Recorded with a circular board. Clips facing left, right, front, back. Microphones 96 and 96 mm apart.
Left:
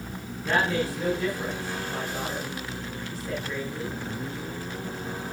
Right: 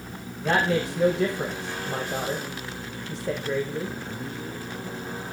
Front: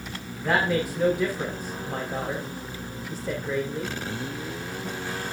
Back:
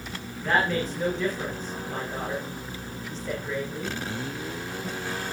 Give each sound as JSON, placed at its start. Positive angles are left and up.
{"t": 0.4, "sound": "a woman speaking", "azimuth_deg": -80, "distance_m": 8.5}